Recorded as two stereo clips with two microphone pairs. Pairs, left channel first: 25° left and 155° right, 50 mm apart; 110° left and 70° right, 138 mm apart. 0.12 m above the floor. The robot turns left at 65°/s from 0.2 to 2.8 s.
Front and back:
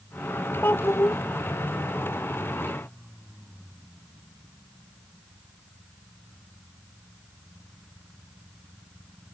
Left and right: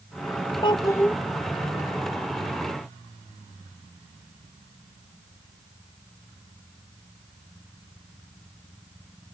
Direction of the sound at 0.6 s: 60° left.